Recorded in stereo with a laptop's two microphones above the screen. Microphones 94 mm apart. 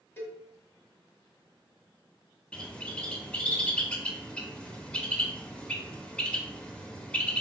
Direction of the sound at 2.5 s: 10° left (ahead or behind).